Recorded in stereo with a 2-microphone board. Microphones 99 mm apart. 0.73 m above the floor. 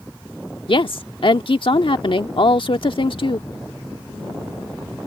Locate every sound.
0.7 s a woman speaking: 60° left (ahead or behind)